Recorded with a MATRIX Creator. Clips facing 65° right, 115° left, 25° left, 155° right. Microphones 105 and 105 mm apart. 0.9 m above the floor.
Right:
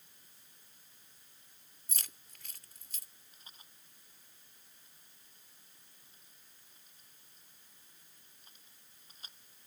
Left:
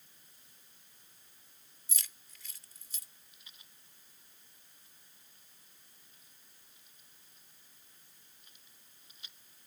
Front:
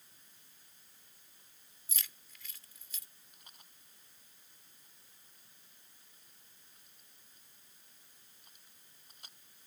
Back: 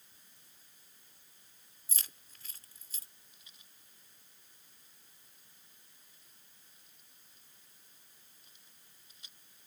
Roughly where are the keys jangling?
Right.